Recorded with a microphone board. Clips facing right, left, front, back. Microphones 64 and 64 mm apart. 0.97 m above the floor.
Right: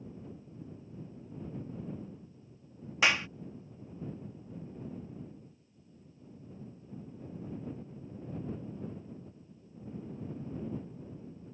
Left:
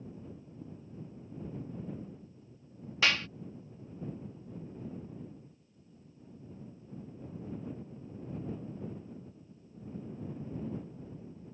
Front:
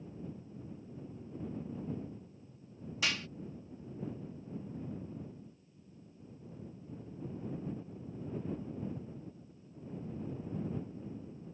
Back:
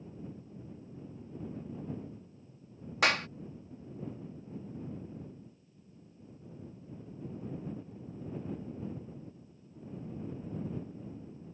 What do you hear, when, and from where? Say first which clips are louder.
3.0 s a clap: right 2 dB, back 8 dB; 160° right